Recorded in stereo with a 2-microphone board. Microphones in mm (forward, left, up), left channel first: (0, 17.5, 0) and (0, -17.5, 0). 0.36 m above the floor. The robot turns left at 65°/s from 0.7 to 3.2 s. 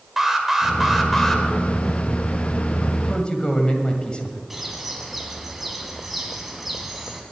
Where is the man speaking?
25° left (ahead or behind), 1.8 m; by 4.4 s 35° left (ahead or behind), 1.8 m.